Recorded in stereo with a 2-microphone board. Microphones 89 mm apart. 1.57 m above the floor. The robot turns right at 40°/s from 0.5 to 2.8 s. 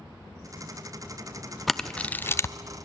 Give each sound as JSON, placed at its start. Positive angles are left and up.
{"t": 1.7, "sound": "a camera shutter", "side_deg": 0, "distance_m": 0.5}